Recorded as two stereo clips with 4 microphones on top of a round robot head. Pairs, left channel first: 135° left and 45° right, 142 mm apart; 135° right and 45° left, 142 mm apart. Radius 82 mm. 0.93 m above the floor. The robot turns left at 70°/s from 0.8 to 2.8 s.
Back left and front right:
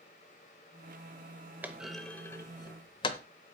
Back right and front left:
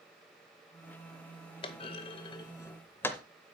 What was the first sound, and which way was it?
A clunk, 115° right.